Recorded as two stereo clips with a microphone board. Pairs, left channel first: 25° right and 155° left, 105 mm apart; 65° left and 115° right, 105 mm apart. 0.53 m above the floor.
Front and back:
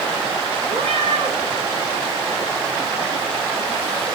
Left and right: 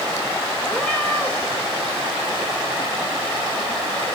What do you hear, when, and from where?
0.7 s a cat meowing: 145° left, 6.5 m